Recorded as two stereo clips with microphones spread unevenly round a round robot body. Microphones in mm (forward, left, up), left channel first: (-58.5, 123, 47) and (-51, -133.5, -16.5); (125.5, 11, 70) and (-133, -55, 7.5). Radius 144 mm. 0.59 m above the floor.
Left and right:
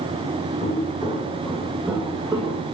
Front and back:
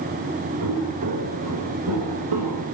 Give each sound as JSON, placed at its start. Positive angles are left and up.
{"t": 0.6, "sound": "footsteps", "azimuth_deg": 155, "distance_m": 2.5}